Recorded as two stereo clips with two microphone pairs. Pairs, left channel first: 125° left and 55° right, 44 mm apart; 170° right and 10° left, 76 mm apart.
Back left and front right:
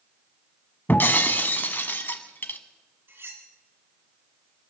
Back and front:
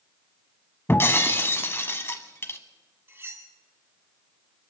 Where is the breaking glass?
140° left, 1.0 m.